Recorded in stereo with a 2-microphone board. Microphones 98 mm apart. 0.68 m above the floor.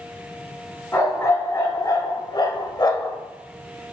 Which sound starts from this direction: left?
A dog barking, at 0.9 s.